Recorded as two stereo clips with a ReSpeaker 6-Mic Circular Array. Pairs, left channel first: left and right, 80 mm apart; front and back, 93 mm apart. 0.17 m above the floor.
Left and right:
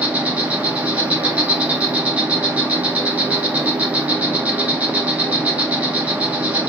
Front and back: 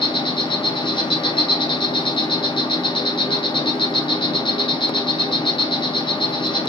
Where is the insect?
20° right, 1.0 m.